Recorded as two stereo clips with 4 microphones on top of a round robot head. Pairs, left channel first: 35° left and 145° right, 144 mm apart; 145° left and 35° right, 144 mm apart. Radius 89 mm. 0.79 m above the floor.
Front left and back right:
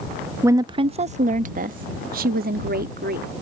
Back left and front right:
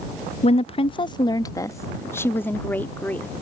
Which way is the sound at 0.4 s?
150° left.